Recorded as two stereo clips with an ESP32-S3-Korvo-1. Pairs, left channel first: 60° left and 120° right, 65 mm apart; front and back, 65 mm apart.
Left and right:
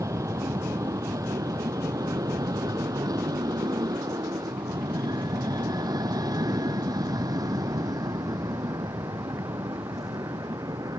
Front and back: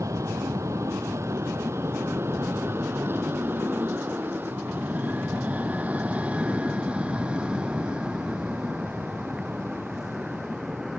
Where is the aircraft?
150° right; by 11.0 s 95° right.